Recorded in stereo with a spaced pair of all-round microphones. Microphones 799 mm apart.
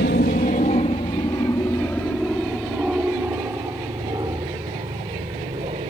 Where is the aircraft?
10° left (ahead or behind); by 5.9 s 10° right (ahead or behind).